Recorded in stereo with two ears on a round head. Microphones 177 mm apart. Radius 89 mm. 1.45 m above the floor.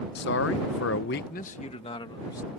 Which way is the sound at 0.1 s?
55° left (ahead or behind).